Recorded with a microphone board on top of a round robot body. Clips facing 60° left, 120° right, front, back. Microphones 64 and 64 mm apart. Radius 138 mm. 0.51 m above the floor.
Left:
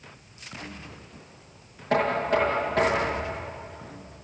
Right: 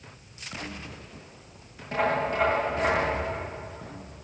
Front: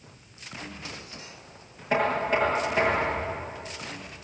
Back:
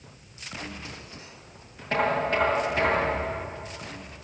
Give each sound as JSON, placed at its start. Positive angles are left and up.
{"t": 1.9, "sound": "knocking", "azimuth_deg": 80, "distance_m": 9.5}